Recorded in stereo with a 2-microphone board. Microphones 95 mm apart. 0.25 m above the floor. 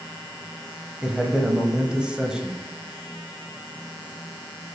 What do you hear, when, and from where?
1.0 s a man speaking: 10° right (ahead or behind), 0.9 m